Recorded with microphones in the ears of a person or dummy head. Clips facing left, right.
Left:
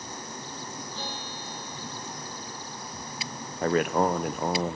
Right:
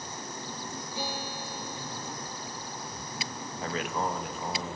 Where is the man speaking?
45° left (ahead or behind), 0.8 m.